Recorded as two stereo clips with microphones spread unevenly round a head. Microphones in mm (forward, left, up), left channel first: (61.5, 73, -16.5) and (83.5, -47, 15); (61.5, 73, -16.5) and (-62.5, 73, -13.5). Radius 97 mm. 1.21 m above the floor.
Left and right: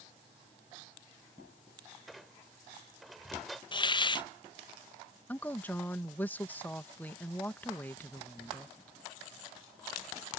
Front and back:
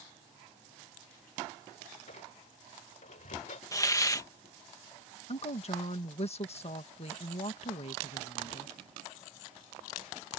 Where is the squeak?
Straight ahead.